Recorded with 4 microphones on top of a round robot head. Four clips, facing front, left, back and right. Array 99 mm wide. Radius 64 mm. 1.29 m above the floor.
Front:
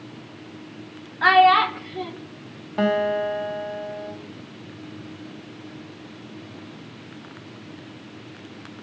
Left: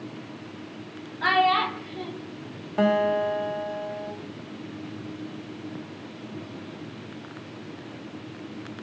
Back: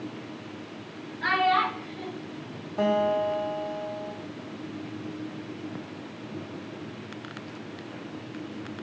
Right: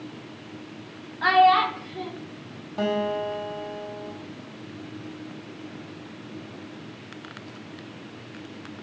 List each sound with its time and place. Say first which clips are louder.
1.2 s a child speaking: right 4 dB, front 9 dB; 10° right, 0.6 m
2.8 s a guitar: left 4 dB, front 2 dB; 40° left, 0.8 m